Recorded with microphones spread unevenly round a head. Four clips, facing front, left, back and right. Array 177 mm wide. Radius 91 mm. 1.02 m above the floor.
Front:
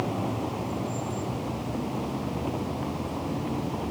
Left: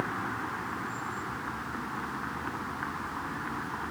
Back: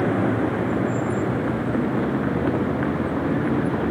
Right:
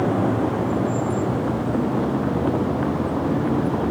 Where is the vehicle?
135° right.